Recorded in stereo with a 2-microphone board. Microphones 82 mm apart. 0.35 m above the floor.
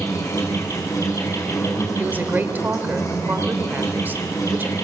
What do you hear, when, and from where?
0.0 s an insect: 35° left (ahead or behind), 4.5 m
2.0 s a woman speaking: 20° right (ahead or behind), 1.5 m